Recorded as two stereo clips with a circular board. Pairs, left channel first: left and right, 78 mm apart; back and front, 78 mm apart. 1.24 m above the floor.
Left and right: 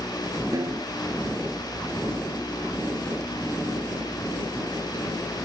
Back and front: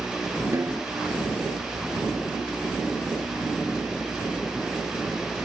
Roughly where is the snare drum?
Ahead right.